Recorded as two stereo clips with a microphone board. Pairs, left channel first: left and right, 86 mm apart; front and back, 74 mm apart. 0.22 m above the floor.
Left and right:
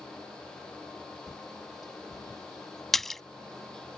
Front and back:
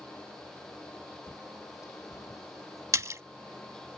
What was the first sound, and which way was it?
A bird, 45° left.